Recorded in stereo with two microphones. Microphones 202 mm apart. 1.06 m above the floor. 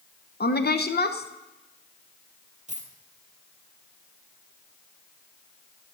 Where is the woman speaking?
50° left (ahead or behind), 0.7 m.